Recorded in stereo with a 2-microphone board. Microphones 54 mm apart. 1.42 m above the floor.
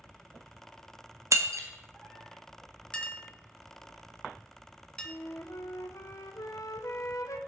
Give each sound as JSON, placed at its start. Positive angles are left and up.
{"t": 1.3, "sound": "breaking glass", "side_deg": -65, "distance_m": 1.3}
{"t": 2.9, "sound": "a clink", "side_deg": 20, "distance_m": 0.9}
{"t": 5.0, "sound": "a flute", "side_deg": 75, "distance_m": 0.7}